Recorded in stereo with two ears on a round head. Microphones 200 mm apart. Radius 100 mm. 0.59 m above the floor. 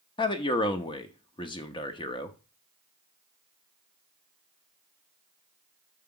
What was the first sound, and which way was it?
A man speaking, 20° left (ahead or behind).